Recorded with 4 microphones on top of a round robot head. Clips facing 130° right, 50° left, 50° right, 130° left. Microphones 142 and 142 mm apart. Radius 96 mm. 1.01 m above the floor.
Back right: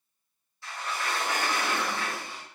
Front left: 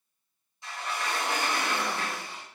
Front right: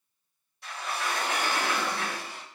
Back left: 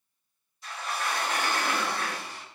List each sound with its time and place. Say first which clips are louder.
0.6 s a sliding door: even, even; 20° right, 3 m